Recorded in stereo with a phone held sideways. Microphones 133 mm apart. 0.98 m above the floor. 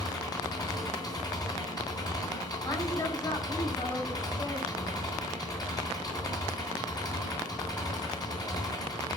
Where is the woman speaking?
30° left (ahead or behind), 4 m.